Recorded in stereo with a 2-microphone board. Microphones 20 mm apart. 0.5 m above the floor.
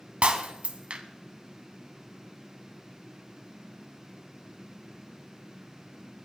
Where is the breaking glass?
70° right (ahead or behind), 1.9 m.